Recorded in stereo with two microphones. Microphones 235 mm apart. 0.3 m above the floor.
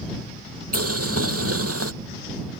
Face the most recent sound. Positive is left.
turn(degrees=-85)